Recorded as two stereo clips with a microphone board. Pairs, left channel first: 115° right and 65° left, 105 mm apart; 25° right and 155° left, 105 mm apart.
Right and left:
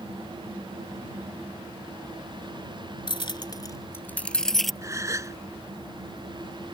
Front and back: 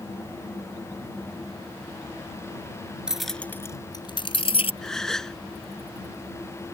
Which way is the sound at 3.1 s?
120° right.